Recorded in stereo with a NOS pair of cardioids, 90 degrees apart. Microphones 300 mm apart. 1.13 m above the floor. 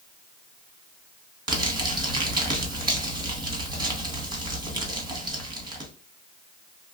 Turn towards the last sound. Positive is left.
turn(degrees=-15)